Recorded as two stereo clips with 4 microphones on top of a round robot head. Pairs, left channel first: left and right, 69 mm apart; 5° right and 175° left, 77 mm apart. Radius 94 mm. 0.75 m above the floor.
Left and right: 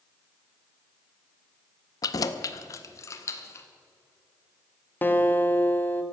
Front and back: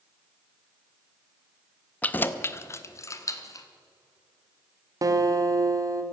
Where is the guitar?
145° left, 1.6 m.